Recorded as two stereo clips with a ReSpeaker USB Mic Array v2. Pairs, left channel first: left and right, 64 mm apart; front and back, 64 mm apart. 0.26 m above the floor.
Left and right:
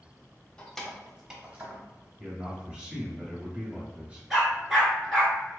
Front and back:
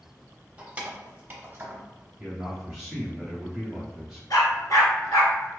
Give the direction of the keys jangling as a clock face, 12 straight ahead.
7 o'clock.